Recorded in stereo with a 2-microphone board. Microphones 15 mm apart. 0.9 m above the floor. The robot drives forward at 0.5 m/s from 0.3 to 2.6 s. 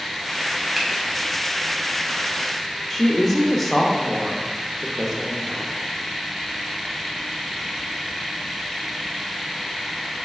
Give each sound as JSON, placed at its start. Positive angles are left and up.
{"t": 0.8, "sound": "a finger snap", "side_deg": -10, "distance_m": 0.7}
{"t": 2.9, "sound": "a woman speaking", "side_deg": 10, "distance_m": 0.6}